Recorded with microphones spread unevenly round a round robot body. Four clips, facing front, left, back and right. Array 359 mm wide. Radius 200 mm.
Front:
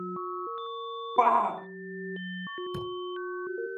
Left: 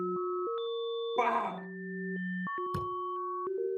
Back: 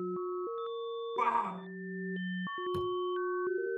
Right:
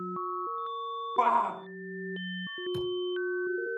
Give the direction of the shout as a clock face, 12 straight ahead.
12 o'clock.